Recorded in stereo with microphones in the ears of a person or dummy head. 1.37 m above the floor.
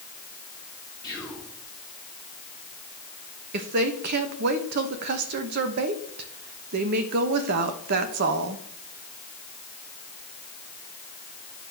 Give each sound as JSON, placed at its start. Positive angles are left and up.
{"t": 1.0, "sound": "whispering", "side_deg": 0, "distance_m": 1.7}
{"t": 3.5, "sound": "a woman speaking", "side_deg": -55, "distance_m": 1.0}